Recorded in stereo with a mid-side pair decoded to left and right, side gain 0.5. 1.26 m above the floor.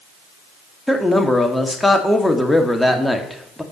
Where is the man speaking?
5° left, 2 m.